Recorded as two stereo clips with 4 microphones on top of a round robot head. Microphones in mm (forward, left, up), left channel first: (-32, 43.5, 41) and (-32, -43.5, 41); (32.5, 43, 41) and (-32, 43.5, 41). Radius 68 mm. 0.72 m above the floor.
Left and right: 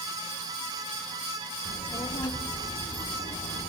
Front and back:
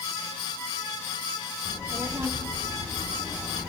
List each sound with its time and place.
1.6 s a child speaking: 125° left, 2 m; by 3.7 s 90° left, 1.2 m